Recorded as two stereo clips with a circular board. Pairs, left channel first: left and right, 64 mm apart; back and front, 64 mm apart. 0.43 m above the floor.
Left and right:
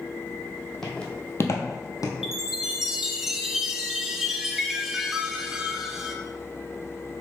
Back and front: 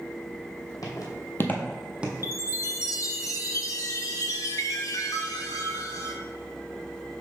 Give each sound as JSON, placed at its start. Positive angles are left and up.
{"t": 0.8, "sound": "footsteps", "azimuth_deg": 175, "distance_m": 1.2}
{"t": 2.2, "sound": "a chime", "azimuth_deg": -170, "distance_m": 0.5}